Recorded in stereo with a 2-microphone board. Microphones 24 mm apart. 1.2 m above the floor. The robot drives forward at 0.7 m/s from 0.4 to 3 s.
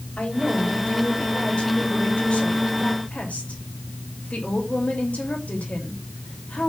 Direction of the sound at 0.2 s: 50° left (ahead or behind).